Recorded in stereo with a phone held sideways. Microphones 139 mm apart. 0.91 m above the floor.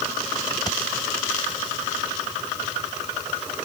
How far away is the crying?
I don't hear crying.